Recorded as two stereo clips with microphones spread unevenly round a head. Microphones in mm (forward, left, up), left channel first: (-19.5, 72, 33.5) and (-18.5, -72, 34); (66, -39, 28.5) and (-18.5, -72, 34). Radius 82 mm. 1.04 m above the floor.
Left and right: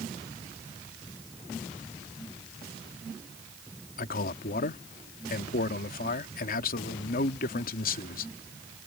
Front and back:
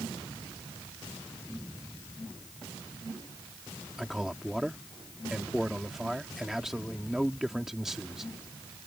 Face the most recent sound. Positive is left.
turn(degrees=115)